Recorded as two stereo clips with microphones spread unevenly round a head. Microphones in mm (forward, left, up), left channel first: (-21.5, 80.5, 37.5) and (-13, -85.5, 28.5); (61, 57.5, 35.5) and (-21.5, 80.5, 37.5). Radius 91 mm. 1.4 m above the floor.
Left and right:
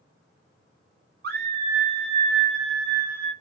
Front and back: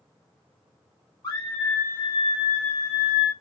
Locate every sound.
1.2 s a scream: 70° right, 0.7 m; by 3.3 s 15° right, 1.8 m